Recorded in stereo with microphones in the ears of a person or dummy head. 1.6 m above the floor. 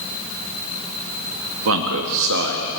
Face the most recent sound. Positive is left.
turn(degrees=-65)  # may be behind; listen again after turning